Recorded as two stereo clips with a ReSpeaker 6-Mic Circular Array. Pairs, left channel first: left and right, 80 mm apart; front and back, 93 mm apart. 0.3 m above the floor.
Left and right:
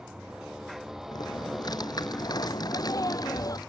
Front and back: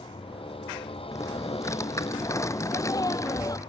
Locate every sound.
0.0 s a motorcycle: 10° right; by 3.7 s 10° left
1.1 s typing on a keyboard: 55° left
2.6 s a sneeze: 50° left